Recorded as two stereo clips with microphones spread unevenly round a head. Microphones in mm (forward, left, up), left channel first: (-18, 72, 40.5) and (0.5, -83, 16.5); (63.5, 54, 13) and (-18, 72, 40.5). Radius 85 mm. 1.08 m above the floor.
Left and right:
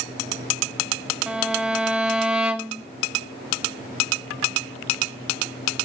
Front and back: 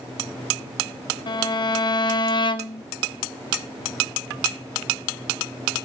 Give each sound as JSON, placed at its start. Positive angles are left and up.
{"t": 1.3, "sound": "a violin", "azimuth_deg": 0, "distance_m": 1.2}